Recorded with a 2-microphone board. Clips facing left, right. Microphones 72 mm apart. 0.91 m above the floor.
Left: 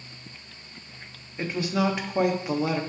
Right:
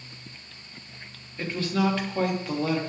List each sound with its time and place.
1.4 s a woman speaking: 15° left (ahead or behind), 1.2 m